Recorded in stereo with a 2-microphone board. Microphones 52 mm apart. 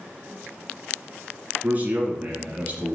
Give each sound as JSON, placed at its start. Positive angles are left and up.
{"t": 1.6, "sound": "a man speaking", "side_deg": -30, "distance_m": 1.8}